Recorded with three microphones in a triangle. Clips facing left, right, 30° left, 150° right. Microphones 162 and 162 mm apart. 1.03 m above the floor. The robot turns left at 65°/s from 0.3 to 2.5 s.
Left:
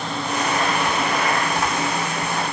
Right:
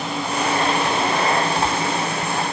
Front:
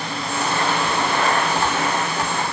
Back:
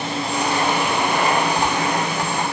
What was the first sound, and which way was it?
Only background noise.